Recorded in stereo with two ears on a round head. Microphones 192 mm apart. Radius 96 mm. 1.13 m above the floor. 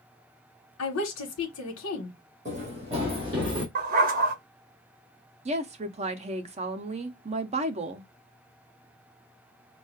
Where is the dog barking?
40° right (ahead or behind), 0.9 m.